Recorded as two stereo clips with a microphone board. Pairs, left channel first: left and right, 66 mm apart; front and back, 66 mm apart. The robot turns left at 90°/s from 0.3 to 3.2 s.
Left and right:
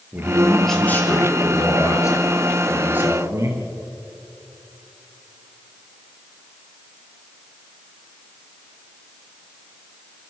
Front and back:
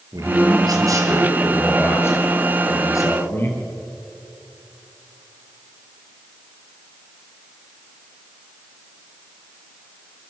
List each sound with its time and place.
0.1 s a man speaking: 150° right, 6 m; by 3.6 s 50° right, 6 m